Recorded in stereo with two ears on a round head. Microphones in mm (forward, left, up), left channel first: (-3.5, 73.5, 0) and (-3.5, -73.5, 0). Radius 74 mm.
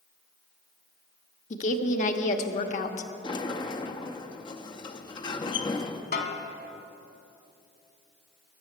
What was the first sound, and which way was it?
A woman speaking, 45° left (ahead or behind).